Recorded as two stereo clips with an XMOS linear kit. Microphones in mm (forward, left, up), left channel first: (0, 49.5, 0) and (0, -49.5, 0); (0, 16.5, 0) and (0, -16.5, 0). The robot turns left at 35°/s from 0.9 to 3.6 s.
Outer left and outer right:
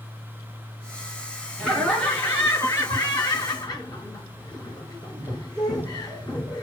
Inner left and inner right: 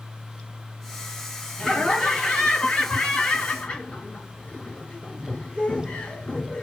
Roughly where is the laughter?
Behind.